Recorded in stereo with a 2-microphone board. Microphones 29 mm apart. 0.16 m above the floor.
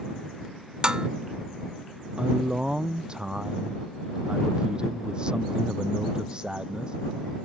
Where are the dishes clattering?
30° right (ahead or behind).